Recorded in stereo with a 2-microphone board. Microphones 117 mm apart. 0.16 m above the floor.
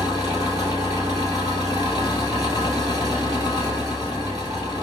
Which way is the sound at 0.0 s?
30° right (ahead or behind).